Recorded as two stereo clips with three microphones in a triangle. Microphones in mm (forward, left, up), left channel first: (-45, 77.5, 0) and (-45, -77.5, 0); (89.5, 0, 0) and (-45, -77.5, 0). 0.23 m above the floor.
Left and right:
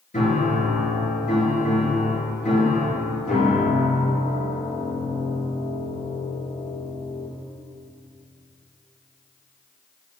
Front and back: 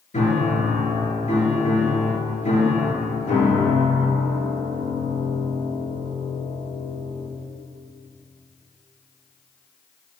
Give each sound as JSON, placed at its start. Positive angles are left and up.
{"t": 0.1, "sound": "a piano", "azimuth_deg": 65, "distance_m": 5.0}